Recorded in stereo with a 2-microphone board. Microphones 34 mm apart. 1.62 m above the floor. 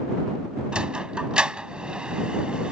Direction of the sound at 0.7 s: 25° right (ahead or behind).